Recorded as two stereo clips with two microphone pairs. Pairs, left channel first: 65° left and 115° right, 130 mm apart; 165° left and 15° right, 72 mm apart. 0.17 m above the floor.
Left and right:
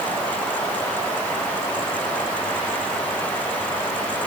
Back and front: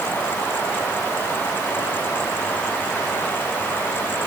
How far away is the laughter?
I don't hear laughter.